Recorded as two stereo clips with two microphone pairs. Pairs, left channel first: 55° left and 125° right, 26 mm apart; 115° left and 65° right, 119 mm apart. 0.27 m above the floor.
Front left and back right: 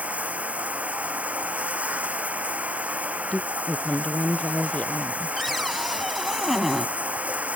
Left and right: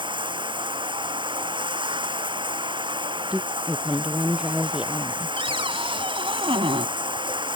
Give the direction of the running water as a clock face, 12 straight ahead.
4 o'clock.